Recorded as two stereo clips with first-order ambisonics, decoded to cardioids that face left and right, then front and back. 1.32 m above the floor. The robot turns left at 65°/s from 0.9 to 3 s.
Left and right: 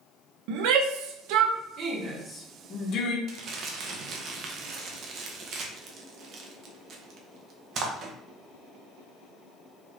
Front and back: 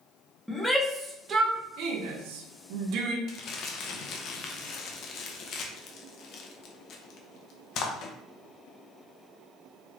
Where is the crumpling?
40° right, 0.6 m.